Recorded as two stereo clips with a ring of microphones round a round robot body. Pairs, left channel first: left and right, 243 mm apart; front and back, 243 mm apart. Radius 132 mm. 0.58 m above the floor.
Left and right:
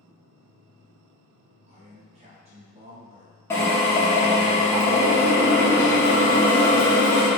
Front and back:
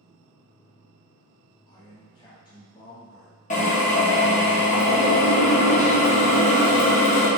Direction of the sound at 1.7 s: 55° right.